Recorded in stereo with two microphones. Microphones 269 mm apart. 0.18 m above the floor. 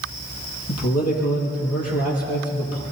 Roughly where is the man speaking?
Left.